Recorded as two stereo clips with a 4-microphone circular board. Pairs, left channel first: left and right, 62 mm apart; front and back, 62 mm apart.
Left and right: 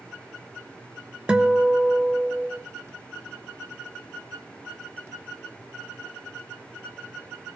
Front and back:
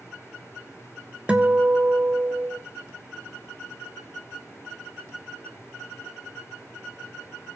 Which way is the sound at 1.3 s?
140° right.